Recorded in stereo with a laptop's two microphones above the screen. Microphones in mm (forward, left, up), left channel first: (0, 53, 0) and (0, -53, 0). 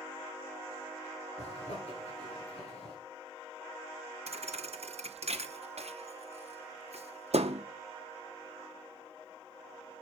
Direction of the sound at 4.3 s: 70° right (ahead or behind).